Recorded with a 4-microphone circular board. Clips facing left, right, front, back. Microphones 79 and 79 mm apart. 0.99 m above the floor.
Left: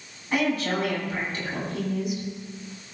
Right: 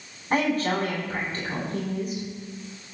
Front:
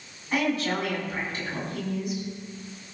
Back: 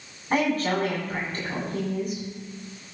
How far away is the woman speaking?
About 9 m.